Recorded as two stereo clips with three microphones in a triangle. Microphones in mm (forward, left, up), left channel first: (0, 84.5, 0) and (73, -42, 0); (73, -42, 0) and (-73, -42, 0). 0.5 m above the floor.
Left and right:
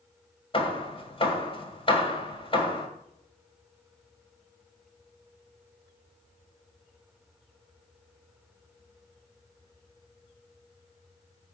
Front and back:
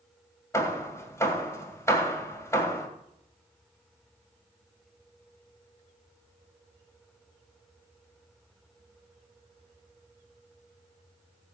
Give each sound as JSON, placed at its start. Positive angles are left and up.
{"t": 0.5, "sound": "hammering", "azimuth_deg": 70, "distance_m": 1.9}